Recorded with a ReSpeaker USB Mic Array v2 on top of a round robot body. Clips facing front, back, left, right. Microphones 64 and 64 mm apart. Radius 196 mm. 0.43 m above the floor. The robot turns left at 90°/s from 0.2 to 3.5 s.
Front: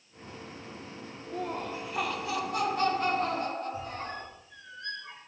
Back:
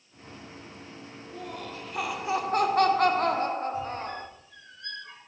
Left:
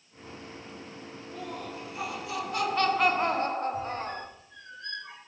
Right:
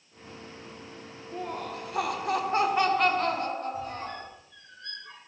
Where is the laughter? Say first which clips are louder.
Front 5 dB, right 4 dB; 30° right, 2.5 m; by 4.3 s 135° left, 2.5 m.